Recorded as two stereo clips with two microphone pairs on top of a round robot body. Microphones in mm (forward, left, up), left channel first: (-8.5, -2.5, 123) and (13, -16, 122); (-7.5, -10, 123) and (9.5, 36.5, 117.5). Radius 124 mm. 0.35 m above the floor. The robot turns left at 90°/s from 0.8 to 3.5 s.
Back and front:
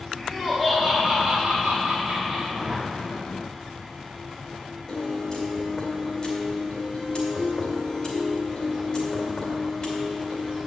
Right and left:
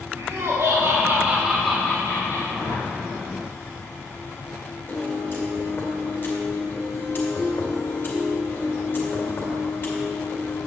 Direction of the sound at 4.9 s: 160° right.